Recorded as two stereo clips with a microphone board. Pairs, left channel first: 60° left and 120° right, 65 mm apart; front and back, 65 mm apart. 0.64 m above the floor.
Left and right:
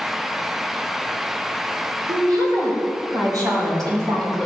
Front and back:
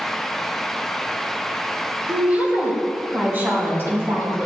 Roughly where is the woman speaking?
Right.